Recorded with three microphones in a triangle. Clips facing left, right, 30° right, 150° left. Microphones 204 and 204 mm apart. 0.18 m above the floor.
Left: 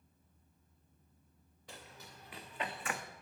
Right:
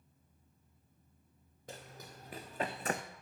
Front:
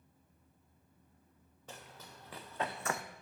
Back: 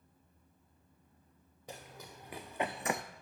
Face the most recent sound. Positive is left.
turn(degrees=-140)